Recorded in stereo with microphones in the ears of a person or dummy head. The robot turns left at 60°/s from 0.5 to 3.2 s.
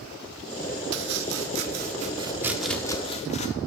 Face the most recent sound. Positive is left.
turn(degrees=145)